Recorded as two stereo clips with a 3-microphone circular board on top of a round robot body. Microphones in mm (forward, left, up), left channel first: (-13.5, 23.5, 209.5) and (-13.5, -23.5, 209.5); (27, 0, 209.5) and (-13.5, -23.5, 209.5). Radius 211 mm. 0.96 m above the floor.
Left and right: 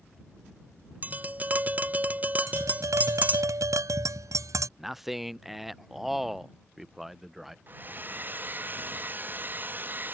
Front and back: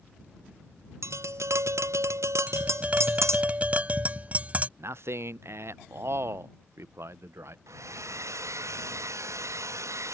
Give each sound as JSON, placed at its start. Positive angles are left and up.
{"t": 1.0, "sound": "tapping", "azimuth_deg": -145}
{"t": 2.5, "sound": "tapping", "azimuth_deg": -90}
{"t": 4.8, "sound": "a man speaking", "azimuth_deg": -175}
{"t": 7.7, "sound": "a hair dryer", "azimuth_deg": -140}